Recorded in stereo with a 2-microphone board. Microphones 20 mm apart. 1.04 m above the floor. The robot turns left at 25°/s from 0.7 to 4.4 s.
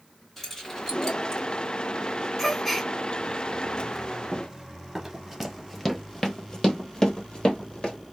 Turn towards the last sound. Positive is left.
turn(degrees=60)  # may be behind; listen again after turning